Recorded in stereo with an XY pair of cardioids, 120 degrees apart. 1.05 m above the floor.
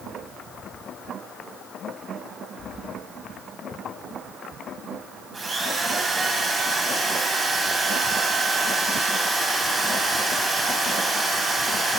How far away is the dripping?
No dripping in this recording.